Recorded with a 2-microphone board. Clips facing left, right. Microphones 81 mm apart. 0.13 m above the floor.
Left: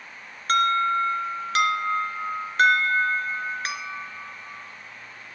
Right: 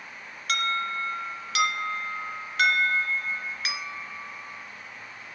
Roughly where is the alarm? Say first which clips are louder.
Left 8 dB; left.